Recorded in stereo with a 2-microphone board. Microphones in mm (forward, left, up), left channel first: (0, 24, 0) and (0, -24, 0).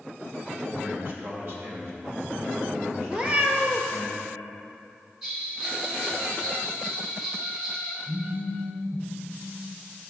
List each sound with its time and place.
0.6 s a man speaking: 30° right (ahead or behind), 1.4 m; by 4.1 s 70° right (ahead or behind), 3.5 m
3.1 s a cat meowing: 25° right (ahead or behind), 0.9 m
5.2 s a bell: 15° right (ahead or behind), 1.7 m
8.1 s a phone buzzing: 85° right, 1.6 m